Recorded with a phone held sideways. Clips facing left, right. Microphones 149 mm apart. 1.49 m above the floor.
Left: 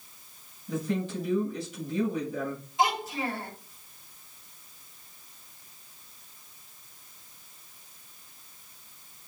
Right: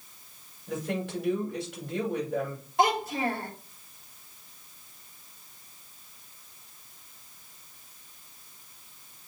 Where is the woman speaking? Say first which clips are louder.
Left 1 dB; 80° right, 5.5 m.